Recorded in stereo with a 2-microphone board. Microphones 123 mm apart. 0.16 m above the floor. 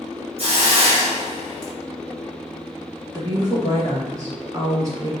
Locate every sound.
0.4 s a hiss: 55° right (ahead or behind), 1.9 m
3.1 s a woman speaking: 30° right (ahead or behind), 2.0 m